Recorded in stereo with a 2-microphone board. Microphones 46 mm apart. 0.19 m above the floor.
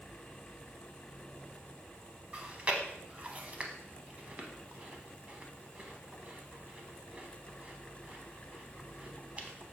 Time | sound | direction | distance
2.3 | chewing | 30° right (ahead or behind) | 0.6 m